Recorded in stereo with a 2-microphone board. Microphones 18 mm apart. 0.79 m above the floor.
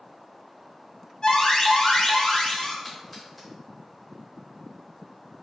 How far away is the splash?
About 1.2 m.